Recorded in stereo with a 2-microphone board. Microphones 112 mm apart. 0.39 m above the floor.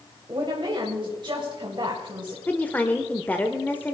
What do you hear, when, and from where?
0.3 s a woman speaking: 50° right (ahead or behind), 2.5 m
2.5 s a woman speaking: 15° left (ahead or behind), 1.0 m